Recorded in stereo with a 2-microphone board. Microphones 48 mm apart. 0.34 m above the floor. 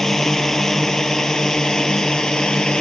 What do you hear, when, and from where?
0.0 s a drone: 10° left (ahead or behind); by 2.8 s 15° left (ahead or behind)